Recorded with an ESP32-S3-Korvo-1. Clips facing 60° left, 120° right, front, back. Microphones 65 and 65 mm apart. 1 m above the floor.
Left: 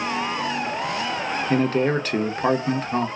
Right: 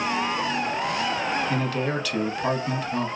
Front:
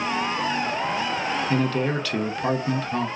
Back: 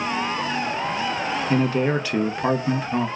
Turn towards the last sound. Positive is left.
turn(degrees=115)